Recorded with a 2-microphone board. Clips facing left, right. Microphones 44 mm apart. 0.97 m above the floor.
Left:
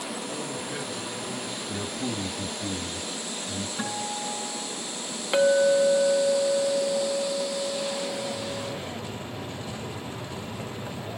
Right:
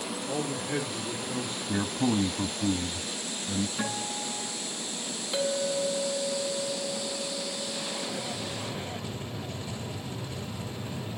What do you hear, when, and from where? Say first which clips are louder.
0.3 s a man speaking: right 2 dB; 50° right (ahead or behind), 3.5 m
1.7 s a man speaking: right 6 dB; 50° right (ahead or behind), 1.0 m
3.8 s a guitar: left 2 dB; centre (ahead or behind), 8 m
5.3 s a clink: left 10 dB; 50° left (ahead or behind), 1.0 m